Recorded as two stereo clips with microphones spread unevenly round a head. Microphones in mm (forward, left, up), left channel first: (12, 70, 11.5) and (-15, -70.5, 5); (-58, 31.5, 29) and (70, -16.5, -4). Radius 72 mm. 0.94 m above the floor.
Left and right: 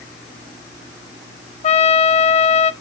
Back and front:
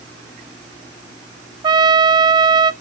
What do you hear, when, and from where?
1.6 s a trumpet: 30° left, 0.6 m